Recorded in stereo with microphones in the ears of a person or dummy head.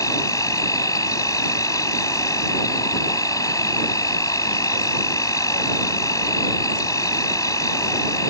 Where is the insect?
15° left (ahead or behind).